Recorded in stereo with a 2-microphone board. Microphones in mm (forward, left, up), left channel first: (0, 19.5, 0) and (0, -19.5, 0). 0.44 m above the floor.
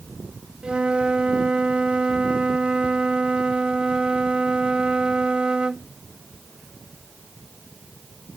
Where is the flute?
25° right (ahead or behind).